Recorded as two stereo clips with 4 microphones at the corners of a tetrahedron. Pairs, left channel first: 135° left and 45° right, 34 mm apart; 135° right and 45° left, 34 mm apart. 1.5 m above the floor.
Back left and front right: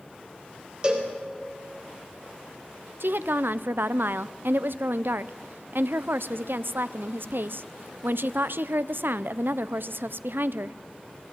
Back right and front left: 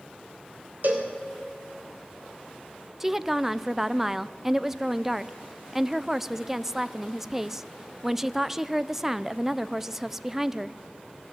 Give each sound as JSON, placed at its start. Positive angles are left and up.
{"t": 0.8, "sound": "a cowbell", "azimuth_deg": 20, "distance_m": 3.0}
{"t": 3.0, "sound": "a woman speaking", "azimuth_deg": -35, "distance_m": 0.6}